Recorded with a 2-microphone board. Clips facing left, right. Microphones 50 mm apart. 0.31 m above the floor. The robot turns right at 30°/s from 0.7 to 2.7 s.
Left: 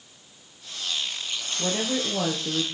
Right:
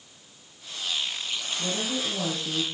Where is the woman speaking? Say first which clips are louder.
Left 4 dB; 110° left, 5.5 m; by 2.7 s 140° left, 5.5 m.